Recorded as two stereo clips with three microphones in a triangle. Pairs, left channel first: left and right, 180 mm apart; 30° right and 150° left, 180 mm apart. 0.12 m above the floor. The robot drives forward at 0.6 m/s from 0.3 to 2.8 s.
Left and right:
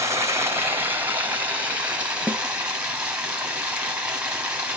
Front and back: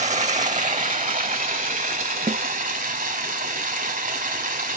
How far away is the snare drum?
About 0.7 m.